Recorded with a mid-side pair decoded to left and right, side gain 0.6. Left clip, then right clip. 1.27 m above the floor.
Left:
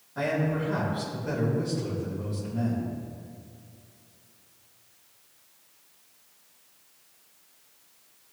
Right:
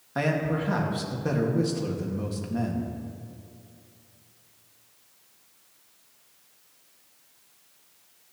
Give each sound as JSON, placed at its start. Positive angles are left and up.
{"t": 0.1, "sound": "a man speaking", "azimuth_deg": -65, "distance_m": 2.5}